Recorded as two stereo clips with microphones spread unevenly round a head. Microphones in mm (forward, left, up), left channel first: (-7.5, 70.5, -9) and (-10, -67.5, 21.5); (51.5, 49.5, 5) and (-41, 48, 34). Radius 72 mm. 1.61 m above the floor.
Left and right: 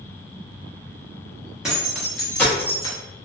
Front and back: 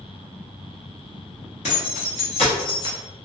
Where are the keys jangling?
15° right, 1.0 m; by 3.0 s 40° left, 0.6 m.